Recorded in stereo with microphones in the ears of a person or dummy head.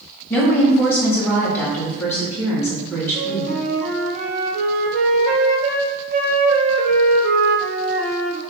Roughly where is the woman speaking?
Centre.